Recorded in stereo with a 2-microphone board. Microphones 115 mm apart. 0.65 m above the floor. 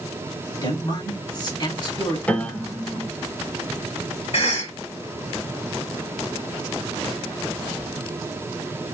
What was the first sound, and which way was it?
A man speaking, 40° left (ahead or behind).